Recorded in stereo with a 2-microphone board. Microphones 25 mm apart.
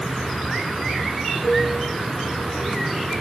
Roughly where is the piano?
Centre.